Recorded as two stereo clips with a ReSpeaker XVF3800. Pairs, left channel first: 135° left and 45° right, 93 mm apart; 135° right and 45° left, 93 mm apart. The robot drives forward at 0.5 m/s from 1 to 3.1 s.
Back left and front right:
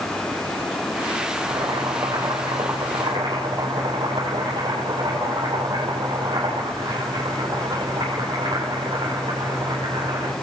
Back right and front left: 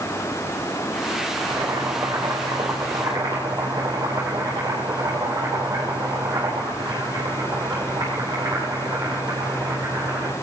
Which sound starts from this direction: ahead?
Boiling, at 1.4 s.